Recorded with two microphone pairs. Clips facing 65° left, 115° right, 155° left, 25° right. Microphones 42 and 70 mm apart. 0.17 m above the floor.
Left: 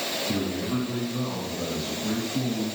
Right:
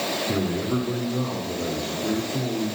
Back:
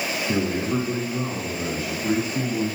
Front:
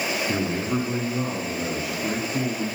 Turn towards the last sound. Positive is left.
turn(degrees=-75)